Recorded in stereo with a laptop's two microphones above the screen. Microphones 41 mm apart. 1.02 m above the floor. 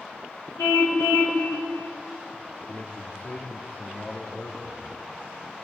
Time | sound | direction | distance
0.6 | a car horn | 85° left | 4 m
2.7 | a man speaking | 45° left (ahead or behind) | 2 m